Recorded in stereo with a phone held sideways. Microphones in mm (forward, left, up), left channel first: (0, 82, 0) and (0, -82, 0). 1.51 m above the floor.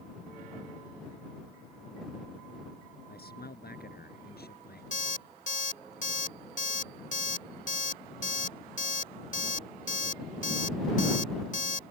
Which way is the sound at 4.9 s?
50° left (ahead or behind).